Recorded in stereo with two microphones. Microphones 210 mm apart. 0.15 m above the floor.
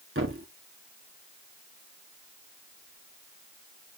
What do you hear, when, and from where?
0.1 s a thud: 65° right (ahead or behind), 1.7 m